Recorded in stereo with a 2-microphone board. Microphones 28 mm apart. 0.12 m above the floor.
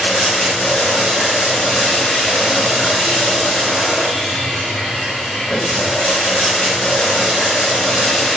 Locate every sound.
0.0 s running water: 25° right (ahead or behind), 7.5 m